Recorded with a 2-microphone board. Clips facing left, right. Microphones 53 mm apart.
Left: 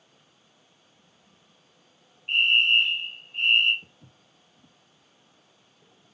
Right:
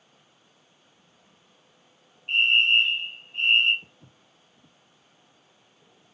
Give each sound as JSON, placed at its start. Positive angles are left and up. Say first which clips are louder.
{"t": 2.3, "sound": "a fire alarm", "louder": "even", "side_deg": 10, "distance_m": 5.0}
{"t": 3.8, "sound": "footsteps", "louder": "right 1 dB", "side_deg": -10, "distance_m": 0.7}